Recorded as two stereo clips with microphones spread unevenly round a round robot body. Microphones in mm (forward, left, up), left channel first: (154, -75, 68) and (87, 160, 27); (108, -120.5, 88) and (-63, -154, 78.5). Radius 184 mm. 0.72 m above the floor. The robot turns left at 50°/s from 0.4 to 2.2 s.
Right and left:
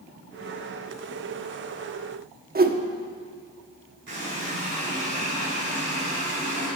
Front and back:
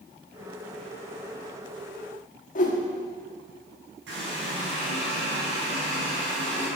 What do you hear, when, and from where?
2.5 s a whoosh: 60° left, 1.2 m
4.1 s a running tap: 165° left, 5 m